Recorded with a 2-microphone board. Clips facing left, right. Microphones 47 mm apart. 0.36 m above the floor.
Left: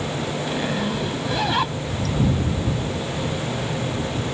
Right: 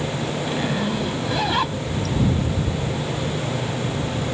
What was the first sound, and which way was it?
A zipper, centre (ahead or behind).